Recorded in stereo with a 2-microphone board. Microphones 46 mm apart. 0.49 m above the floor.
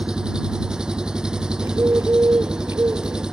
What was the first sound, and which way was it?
An engine running, 20° right (ahead or behind).